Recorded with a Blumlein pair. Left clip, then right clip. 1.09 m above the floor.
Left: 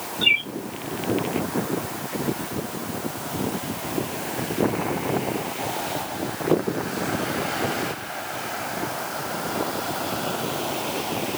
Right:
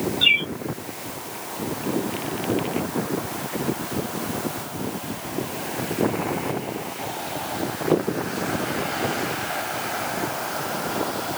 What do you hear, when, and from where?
0.2 s a bird: 15° right, 0.9 m